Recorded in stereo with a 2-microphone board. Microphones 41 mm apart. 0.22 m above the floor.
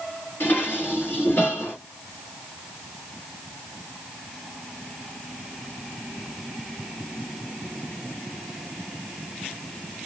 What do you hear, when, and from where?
0.4 s dishes clattering: 60° left (ahead or behind), 1.9 m